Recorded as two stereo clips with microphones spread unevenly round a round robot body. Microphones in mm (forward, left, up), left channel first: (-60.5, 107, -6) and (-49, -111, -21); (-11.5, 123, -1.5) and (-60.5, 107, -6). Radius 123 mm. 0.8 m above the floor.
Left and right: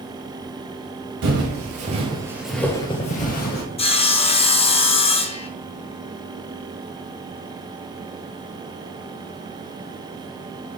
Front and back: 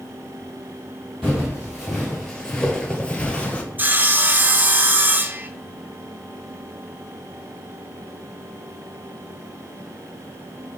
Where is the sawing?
145° left, 0.6 m.